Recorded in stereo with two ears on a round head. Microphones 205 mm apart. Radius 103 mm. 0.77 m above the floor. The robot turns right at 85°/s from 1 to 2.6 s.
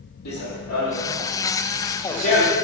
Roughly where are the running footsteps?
Left.